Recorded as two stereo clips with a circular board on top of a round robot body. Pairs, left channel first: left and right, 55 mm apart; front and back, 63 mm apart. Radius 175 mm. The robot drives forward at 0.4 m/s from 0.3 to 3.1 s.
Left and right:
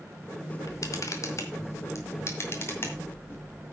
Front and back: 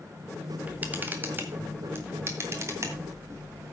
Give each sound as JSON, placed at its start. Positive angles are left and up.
{"t": 0.6, "sound": "a camera shutter", "azimuth_deg": 110, "distance_m": 1.6}